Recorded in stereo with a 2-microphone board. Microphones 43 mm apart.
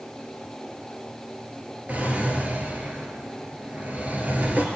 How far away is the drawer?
About 1.8 m.